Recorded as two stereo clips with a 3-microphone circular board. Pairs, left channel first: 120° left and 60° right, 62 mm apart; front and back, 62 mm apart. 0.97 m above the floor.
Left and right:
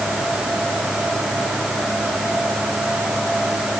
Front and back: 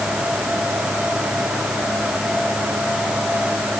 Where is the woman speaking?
I don't hear a woman speaking.